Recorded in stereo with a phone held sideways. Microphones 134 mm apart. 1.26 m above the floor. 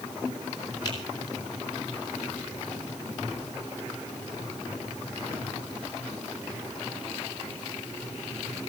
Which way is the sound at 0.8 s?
35° left (ahead or behind).